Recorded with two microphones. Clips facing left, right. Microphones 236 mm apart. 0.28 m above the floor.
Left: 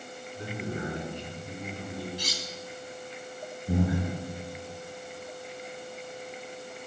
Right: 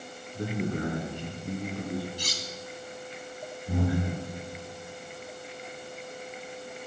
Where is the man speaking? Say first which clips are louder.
Right 5 dB; 55° right (ahead or behind), 3 m.